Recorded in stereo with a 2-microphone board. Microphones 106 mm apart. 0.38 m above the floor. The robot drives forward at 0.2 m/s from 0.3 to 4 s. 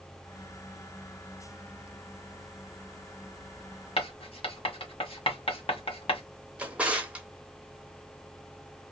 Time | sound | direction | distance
4.0 | writing | 60° left (ahead or behind) | 1.0 m
6.6 | a drawer | 15° right (ahead or behind) | 0.8 m